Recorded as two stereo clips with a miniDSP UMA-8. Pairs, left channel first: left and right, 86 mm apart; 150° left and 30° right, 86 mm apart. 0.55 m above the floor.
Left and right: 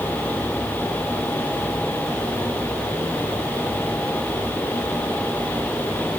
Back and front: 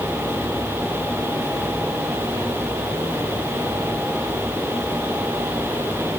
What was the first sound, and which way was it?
Only background noise.